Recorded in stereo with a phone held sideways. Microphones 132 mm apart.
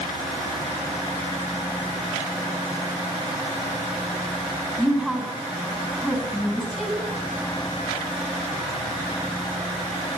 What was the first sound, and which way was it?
A woman speaking, 5° right (ahead or behind).